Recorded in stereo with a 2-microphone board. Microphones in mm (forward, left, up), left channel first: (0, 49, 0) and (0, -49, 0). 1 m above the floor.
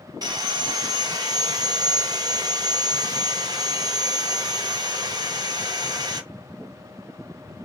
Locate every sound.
0.2 s sawing: 40° right (ahead or behind), 1.0 m